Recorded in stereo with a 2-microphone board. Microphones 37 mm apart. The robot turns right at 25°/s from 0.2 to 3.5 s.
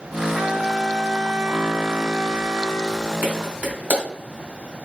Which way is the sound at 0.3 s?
175° right.